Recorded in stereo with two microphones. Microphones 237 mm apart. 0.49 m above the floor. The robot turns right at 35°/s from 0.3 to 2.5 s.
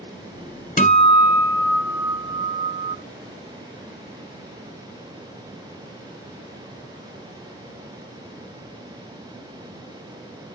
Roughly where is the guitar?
Behind left.